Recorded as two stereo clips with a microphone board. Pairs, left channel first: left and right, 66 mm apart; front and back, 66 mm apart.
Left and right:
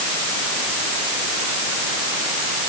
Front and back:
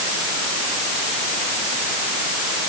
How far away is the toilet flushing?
No toilet flushing in this recording.